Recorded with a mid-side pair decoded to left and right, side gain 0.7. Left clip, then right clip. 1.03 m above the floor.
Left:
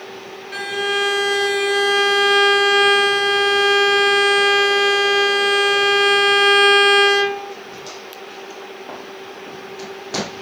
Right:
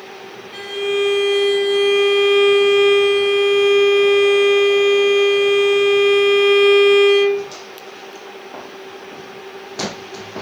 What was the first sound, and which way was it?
A violin, 65° left.